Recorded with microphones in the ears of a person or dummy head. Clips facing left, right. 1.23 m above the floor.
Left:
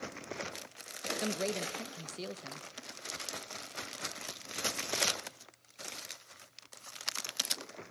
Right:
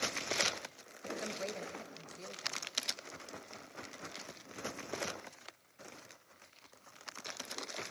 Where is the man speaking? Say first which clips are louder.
Left 8 dB; 50° left (ahead or behind), 0.9 m.